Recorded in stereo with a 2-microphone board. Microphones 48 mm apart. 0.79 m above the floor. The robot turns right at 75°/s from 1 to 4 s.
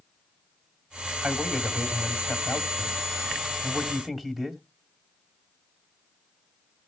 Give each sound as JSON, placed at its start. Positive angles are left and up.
{"t": 1.2, "sound": "a man speaking", "azimuth_deg": -20, "distance_m": 2.0}